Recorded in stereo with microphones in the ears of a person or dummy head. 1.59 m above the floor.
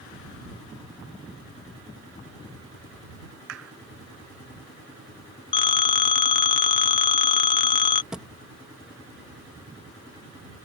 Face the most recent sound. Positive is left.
turn(degrees=-5)  # may be behind; listen again after turning